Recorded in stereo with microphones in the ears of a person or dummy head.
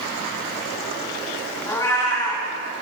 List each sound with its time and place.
1.7 s a cat meowing: 20° left (ahead or behind), 1.7 m